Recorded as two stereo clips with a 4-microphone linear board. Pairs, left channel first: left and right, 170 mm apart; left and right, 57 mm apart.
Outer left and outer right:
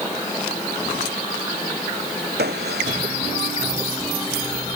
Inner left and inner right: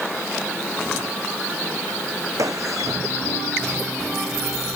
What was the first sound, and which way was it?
A gunshot, 80° right.